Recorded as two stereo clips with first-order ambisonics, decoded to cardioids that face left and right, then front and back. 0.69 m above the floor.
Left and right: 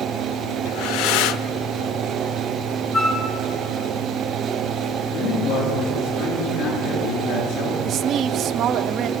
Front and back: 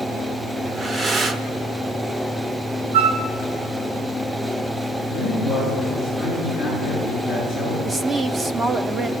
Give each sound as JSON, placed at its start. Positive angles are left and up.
{"t": 0.7, "sound": "breathing", "azimuth_deg": 110, "distance_m": 0.7}
{"t": 2.9, "sound": "a flute", "azimuth_deg": 180, "distance_m": 1.5}
{"t": 5.1, "sound": "a man speaking", "azimuth_deg": 105, "distance_m": 8.5}
{"t": 7.8, "sound": "a woman speaking", "azimuth_deg": -120, "distance_m": 0.6}